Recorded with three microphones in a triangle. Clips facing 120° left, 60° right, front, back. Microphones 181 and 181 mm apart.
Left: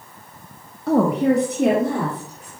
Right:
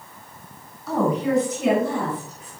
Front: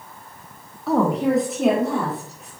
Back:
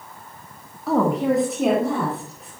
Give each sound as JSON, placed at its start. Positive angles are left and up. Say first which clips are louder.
{"t": 0.9, "sound": "a woman speaking", "louder": "left 5 dB, even", "azimuth_deg": 90, "distance_m": 1.3}